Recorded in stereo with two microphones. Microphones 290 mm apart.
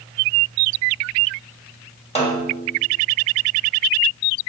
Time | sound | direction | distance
2.1 | a snare drum | 20° left (ahead or behind) | 2.5 m